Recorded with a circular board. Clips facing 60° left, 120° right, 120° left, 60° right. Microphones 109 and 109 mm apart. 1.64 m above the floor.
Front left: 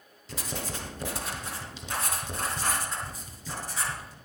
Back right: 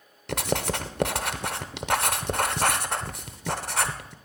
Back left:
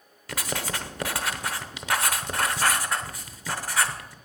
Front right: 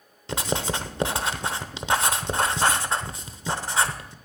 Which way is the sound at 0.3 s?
125° right.